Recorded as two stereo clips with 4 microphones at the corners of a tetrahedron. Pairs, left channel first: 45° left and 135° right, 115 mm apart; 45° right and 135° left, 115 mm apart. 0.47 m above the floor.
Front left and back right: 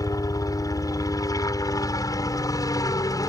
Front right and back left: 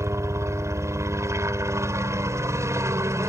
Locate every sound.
0.0 s a helicopter: 85° left